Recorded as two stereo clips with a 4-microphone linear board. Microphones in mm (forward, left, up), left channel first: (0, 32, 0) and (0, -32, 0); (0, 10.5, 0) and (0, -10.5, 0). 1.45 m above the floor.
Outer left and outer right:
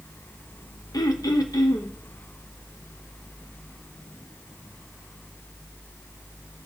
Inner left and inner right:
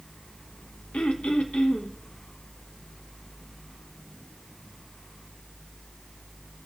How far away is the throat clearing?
About 0.8 m.